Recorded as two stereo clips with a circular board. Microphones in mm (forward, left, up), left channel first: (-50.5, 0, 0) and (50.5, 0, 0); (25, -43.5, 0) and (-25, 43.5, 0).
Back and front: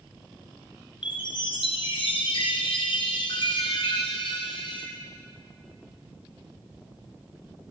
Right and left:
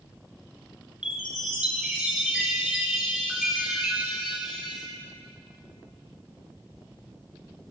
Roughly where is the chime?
Behind.